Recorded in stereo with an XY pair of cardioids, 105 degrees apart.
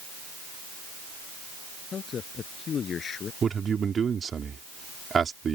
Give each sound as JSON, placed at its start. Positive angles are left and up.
{"t": 1.9, "sound": "a man speaking", "azimuth_deg": 50}
{"t": 3.4, "sound": "a man speaking", "azimuth_deg": -40}